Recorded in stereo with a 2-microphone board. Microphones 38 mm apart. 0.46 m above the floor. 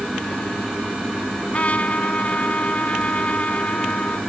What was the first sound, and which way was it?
A trumpet, 40° left (ahead or behind).